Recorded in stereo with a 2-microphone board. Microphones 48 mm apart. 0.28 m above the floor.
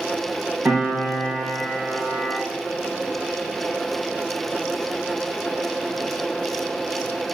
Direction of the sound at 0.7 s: 45° right (ahead or behind).